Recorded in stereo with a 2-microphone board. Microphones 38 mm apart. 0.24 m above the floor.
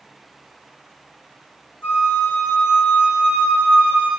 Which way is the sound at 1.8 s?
60° left (ahead or behind).